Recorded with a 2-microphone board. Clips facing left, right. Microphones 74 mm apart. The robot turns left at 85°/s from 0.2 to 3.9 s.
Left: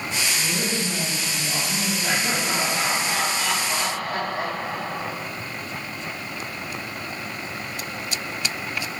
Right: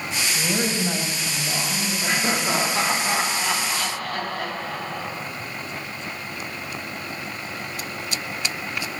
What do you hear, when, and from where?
0.3 s a woman speaking: 65° right, 1.7 m; by 3.0 s 70° left, 1.7 m
2.0 s laughter: 45° right, 1.6 m; by 5.1 s 155° left, 1.6 m